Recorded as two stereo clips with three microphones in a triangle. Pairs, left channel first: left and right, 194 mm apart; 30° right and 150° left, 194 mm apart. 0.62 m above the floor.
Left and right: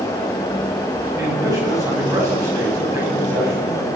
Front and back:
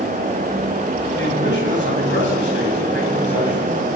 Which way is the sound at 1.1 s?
15° right.